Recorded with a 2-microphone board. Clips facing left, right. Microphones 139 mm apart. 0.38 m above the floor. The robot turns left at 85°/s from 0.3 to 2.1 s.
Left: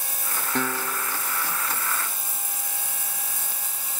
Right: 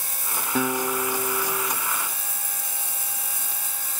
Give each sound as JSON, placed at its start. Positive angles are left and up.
{"t": 0.6, "sound": "a guitar", "azimuth_deg": -5}